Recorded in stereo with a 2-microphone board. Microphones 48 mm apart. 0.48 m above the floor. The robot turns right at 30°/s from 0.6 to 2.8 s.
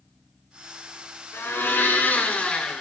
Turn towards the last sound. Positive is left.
turn(degrees=160)